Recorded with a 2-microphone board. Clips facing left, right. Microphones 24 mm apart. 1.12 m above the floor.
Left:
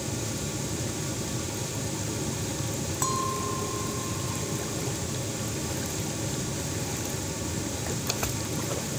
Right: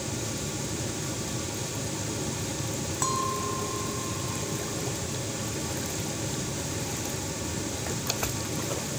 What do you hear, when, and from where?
3.0 s a clink: centre (ahead or behind)